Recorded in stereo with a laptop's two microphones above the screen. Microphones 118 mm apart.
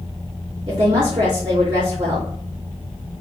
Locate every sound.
0.7 s a woman speaking: 40° right (ahead or behind), 2.5 m